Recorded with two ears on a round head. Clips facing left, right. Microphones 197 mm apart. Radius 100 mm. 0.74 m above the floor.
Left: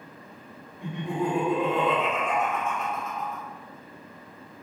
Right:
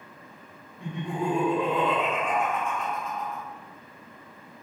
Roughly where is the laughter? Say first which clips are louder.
Left 1 dB; centre.